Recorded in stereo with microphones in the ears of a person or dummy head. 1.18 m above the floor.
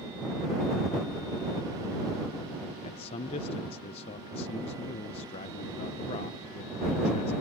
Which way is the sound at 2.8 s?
30° left (ahead or behind).